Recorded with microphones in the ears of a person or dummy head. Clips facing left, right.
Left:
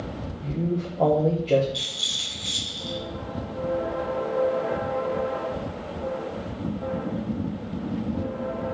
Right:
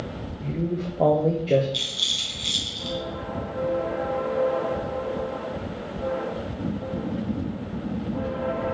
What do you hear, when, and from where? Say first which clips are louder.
0.4 s a man speaking: even; 10° right (ahead or behind), 1.1 m
1.7 s a rattle: right 1 dB; 35° right (ahead or behind), 2.5 m